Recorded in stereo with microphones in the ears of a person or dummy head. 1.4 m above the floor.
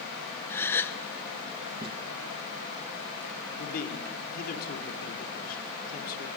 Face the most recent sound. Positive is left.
turn(degrees=50)  # may be behind; listen again after turning